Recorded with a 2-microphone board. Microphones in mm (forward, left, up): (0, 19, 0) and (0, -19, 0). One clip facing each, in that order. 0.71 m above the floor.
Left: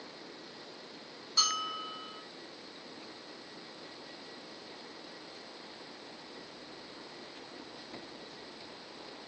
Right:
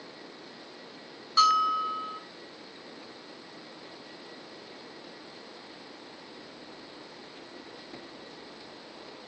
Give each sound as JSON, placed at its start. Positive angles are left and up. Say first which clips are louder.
{"t": 1.4, "sound": "a bell", "louder": "right 11 dB", "side_deg": -65, "distance_m": 3.0}